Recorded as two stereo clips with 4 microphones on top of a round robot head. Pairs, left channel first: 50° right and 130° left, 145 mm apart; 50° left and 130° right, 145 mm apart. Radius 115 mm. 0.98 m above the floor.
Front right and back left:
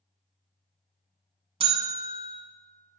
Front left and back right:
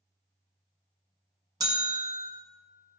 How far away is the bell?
About 1.0 m.